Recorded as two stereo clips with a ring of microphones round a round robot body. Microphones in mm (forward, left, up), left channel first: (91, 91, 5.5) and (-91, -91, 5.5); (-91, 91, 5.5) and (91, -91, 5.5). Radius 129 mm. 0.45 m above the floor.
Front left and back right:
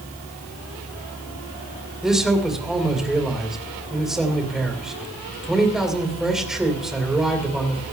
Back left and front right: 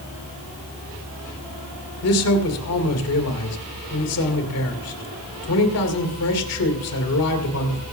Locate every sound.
2.0 s a man speaking: 135° left, 2.5 m